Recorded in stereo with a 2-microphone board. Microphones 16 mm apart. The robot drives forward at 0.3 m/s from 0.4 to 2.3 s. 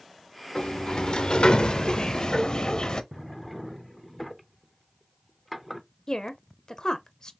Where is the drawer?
5° right (ahead or behind), 0.6 m.